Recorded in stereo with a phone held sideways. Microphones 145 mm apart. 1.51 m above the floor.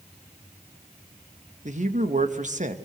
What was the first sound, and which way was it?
A man speaking, 55° right (ahead or behind).